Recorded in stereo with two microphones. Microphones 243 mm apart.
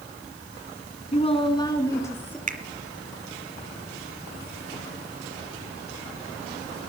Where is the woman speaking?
25° left (ahead or behind), 1.9 m; by 2.4 s 5° left (ahead or behind), 2.5 m.